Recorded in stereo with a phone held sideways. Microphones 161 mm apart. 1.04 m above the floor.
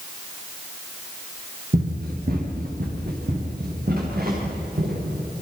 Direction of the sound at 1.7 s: 75° right (ahead or behind).